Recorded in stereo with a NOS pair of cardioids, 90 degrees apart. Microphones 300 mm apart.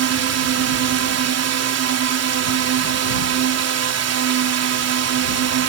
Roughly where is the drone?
Ahead right.